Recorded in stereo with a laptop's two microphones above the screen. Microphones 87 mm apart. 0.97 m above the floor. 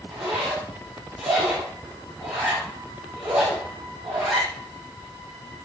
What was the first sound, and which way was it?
A zipper, 5° right (ahead or behind).